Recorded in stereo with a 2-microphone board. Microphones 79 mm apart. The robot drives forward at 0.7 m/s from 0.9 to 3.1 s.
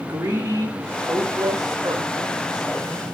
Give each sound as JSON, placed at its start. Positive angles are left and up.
{"t": 0.1, "sound": "a woman speaking", "side_deg": -45, "distance_m": 2.0}